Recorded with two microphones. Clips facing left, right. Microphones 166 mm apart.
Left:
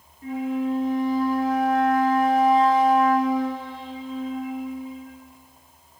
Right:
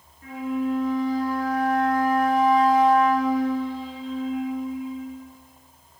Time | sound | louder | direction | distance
0.2 | a flute | left 1 dB | 25° left (ahead or behind) | 3 m